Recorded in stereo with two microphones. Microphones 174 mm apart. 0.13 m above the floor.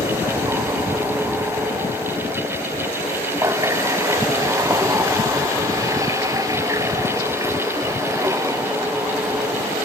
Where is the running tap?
15° right (ahead or behind).